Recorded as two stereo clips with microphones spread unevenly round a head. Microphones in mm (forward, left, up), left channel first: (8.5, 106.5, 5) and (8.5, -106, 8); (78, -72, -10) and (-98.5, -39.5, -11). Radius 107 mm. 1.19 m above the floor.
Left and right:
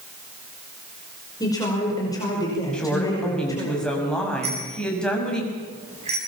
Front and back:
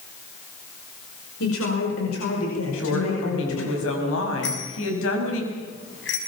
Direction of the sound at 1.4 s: 15° left.